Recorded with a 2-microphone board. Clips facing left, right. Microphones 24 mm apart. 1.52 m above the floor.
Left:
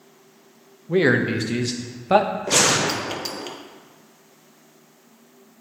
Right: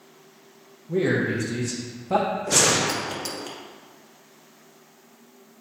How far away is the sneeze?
I don't hear a sneeze.